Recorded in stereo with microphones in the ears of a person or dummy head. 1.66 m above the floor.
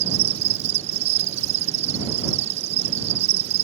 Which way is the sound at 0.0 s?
35° right (ahead or behind).